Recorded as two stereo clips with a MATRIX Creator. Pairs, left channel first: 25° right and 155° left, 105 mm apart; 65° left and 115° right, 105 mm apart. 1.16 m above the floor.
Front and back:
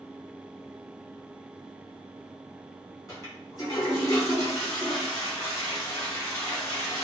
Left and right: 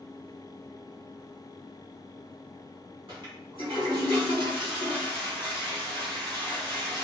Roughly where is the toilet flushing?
Right.